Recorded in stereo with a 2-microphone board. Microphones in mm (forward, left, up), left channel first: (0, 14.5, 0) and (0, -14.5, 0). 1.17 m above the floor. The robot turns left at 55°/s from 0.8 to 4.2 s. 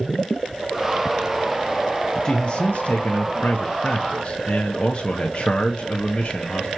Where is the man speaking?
145° left, 0.9 m; by 6.7 s 40° left, 0.9 m.